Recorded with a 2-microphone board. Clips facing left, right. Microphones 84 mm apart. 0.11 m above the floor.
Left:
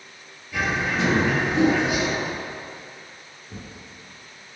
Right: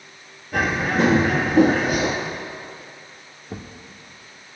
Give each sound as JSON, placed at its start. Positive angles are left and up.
{"t": 0.5, "sound": "a bird", "side_deg": -55, "distance_m": 1.2}
{"t": 3.5, "sound": "a thud", "side_deg": -75, "distance_m": 1.6}